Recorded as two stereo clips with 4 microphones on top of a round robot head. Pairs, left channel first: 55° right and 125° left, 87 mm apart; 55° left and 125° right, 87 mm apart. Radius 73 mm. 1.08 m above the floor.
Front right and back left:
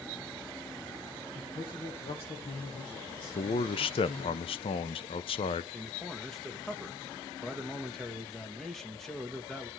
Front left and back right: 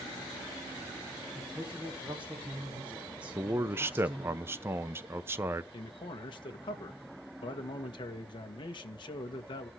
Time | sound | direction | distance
1.3 | a man speaking | 50° right | 2.5 m
3.4 | a man speaking | 65° right | 0.7 m
5.7 | a man speaking | 30° left | 1.5 m